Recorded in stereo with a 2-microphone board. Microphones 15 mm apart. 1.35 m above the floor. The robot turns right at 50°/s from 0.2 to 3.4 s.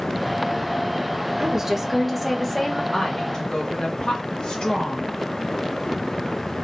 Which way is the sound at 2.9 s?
50° left (ahead or behind).